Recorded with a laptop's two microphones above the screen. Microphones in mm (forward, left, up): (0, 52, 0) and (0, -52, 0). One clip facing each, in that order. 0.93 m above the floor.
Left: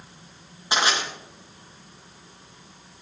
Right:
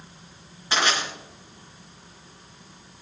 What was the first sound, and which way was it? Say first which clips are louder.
Crushing: even; 15° left (ahead or behind).